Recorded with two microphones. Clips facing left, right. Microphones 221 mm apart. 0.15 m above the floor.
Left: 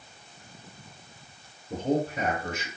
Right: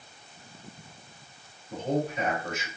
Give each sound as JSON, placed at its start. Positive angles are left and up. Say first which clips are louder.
{"t": 1.7, "sound": "a man speaking", "louder": "left 2 dB", "side_deg": 50, "distance_m": 3.0}